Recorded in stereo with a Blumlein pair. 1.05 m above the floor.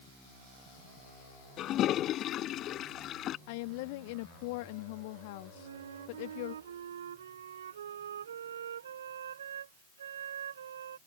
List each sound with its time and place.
1.6 s a toilet flushing: 30° left
3.5 s a woman speaking: 50° left
5.5 s a flute: 65° right